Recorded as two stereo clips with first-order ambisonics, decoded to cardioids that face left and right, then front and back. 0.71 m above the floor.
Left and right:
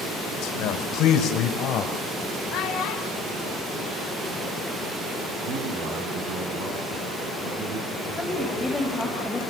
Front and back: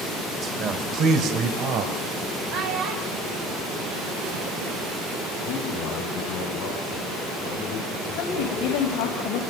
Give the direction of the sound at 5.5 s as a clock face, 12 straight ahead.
2 o'clock.